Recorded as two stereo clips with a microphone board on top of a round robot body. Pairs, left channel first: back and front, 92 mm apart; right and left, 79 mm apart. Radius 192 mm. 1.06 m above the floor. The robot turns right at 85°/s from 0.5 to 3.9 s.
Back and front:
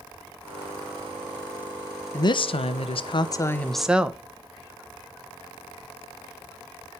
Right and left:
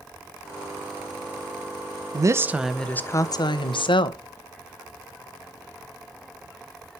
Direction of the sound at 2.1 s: 130° left.